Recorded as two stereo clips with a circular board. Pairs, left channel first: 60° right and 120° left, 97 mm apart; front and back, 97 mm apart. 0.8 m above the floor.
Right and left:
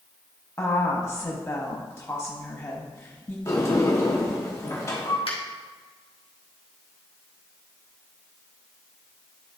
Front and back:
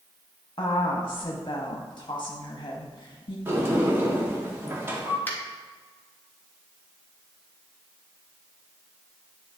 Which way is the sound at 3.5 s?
115° right.